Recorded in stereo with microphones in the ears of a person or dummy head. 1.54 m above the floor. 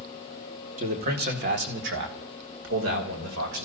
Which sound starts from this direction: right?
A man speaking, at 0.8 s.